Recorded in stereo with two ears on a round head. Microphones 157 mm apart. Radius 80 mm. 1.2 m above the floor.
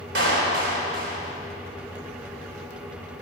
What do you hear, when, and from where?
0.1 s a clap: 65° right (ahead or behind), 3 m